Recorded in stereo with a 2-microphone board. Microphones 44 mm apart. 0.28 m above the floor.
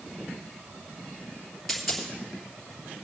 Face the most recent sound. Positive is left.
turn(degrees=5)  # may be behind; listen again after turning